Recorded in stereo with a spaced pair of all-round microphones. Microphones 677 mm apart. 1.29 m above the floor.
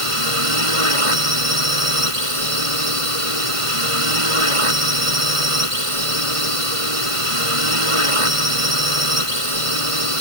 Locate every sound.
0.0 s a drone: 50° right (ahead or behind)